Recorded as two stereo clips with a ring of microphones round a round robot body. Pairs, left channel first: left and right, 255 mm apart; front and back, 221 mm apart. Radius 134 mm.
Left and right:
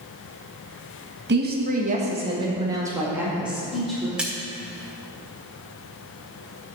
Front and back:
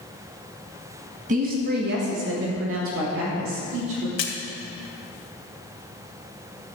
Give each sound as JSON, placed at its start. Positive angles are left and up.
{"t": 1.3, "sound": "a woman speaking", "azimuth_deg": -130, "distance_m": 1.4}
{"t": 4.2, "sound": "a splash", "azimuth_deg": -5, "distance_m": 1.5}